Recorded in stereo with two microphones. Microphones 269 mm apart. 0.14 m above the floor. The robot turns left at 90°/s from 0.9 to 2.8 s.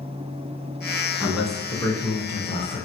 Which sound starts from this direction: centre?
A man speaking, at 1.2 s.